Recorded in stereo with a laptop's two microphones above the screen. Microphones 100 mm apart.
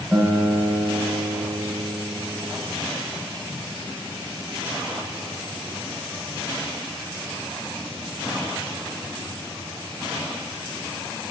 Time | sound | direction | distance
0.1 | a guitar | 15° right (ahead or behind) | 2.5 m